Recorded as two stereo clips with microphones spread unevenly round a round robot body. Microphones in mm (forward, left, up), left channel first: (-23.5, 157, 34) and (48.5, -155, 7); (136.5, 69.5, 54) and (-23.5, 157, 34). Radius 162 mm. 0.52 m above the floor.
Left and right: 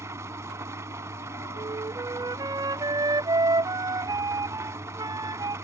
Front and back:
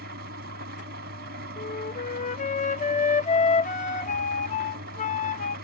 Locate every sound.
0.0 s an engine running: 160° right
1.6 s a flute: 15° right